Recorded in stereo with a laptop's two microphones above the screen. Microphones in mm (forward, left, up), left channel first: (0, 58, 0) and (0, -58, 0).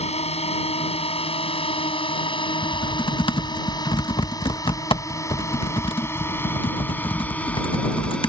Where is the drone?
60° left (ahead or behind); by 8.3 s 10° left (ahead or behind).